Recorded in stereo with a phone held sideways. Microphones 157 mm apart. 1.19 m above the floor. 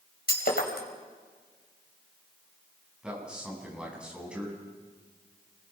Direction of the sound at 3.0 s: 5° right (ahead or behind).